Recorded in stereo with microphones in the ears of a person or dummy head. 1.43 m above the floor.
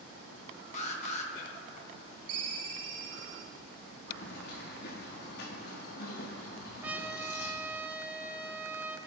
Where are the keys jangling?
60° left (ahead or behind), 2 m.